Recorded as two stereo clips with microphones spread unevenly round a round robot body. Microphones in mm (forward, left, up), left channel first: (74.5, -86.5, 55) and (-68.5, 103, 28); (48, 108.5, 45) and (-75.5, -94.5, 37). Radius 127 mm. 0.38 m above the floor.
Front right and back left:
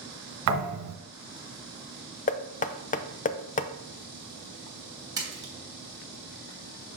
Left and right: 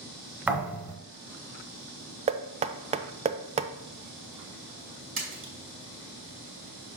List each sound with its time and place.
0.5 s a thud: 155° left, 1.3 m
2.3 s knocking: 90° right, 0.5 m
5.2 s a splash: 165° right, 2.5 m